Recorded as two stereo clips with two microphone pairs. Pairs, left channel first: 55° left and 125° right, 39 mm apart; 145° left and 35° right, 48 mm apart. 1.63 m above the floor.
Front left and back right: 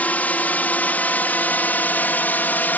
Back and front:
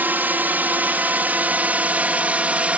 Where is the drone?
15° left; by 2.8 s 25° left.